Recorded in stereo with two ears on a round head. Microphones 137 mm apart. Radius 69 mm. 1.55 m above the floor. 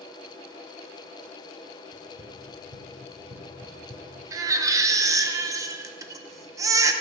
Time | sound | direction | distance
1.9 | running footsteps | 60° right (ahead or behind) | 3 m
4.3 | a baby crying | 20° right (ahead or behind) | 0.6 m